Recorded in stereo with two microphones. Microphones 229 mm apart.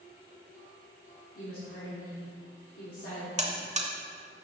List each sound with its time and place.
1.4 s a woman speaking: 70° left (ahead or behind), 1.7 m
3.4 s a buzzer: 30° right (ahead or behind), 0.7 m